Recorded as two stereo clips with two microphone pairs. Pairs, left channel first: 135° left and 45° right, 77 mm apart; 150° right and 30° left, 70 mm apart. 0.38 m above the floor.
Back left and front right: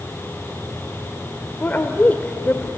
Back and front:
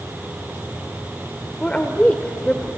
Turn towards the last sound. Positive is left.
turn(degrees=155)